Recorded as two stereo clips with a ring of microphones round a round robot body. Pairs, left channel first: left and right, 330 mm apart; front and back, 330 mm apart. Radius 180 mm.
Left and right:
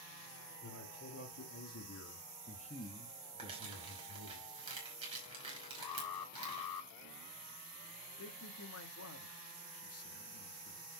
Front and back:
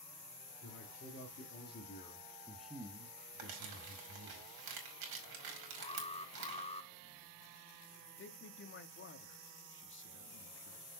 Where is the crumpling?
165° right, 3 m.